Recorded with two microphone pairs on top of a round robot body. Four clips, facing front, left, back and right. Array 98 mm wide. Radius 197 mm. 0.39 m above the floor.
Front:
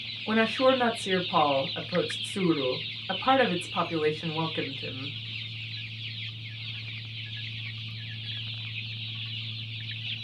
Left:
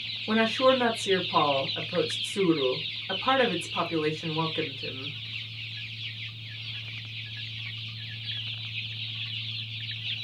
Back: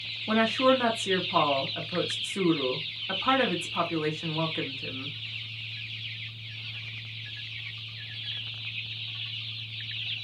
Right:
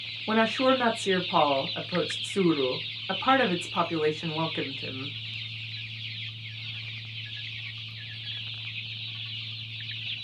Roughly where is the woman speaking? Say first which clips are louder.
Left 1 dB, even; right.